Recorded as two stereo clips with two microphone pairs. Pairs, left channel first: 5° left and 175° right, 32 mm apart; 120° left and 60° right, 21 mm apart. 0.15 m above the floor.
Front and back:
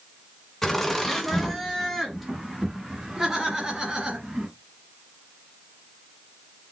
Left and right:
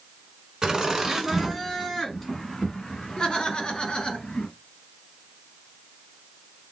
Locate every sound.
0.6 s laughter: 60° right, 1.4 m; by 4.5 s 135° left, 1.8 m